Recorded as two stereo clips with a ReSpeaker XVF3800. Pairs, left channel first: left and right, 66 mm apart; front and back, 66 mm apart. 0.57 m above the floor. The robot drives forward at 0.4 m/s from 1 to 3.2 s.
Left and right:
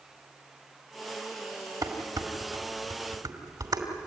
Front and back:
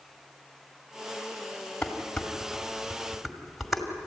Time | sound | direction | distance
1.8 | dishes clattering | 75° right | 2.5 m